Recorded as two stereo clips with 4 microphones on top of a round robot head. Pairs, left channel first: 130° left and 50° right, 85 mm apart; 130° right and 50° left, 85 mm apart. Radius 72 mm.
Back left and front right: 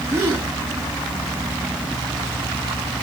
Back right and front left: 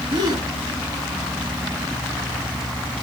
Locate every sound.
0.1 s a gasp: 10° left, 3 m